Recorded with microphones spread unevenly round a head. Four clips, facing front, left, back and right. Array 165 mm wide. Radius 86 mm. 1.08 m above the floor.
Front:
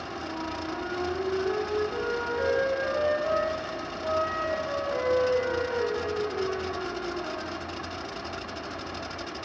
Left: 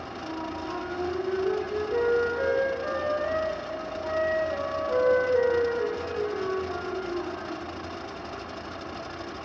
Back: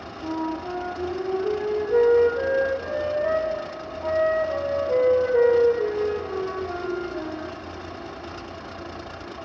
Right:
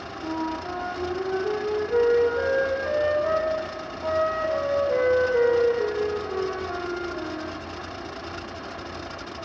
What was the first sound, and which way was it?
A flute, 155° right.